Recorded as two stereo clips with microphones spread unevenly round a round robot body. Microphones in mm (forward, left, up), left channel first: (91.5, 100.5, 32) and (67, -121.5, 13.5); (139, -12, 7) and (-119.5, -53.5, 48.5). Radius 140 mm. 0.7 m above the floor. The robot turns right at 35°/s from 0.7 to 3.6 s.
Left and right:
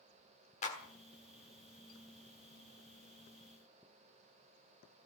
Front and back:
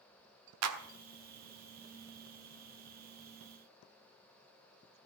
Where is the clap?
150° left, 1.4 m; by 0.8 s 155° left, 1.4 m.